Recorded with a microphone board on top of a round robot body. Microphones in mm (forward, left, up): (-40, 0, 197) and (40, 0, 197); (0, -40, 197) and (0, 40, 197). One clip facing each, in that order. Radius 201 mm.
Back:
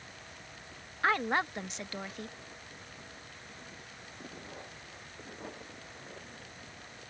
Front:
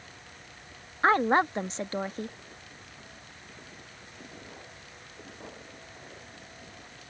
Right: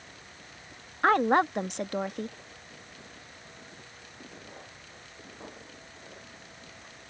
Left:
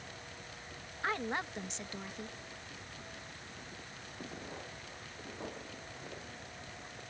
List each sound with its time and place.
1.0 s a woman speaking: 55° right